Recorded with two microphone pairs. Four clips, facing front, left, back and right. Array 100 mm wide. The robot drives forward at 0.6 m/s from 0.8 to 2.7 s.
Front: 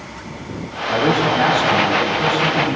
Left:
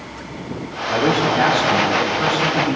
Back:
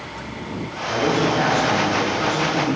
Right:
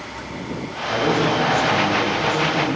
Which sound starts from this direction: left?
A man speaking, at 0.9 s.